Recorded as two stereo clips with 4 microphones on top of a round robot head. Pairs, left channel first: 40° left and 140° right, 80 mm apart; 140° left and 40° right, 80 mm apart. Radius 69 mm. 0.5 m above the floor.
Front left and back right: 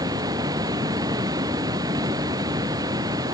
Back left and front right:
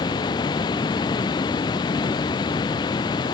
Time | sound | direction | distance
0.0 | running water | 175° left | ?